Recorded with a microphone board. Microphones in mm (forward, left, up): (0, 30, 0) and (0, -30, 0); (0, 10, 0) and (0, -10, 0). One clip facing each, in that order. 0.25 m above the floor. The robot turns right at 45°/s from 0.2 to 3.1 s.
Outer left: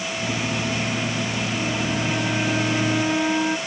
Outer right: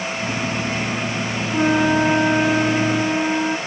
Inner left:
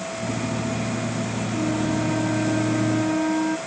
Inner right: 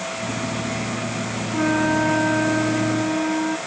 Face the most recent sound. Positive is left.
turn(degrees=-5)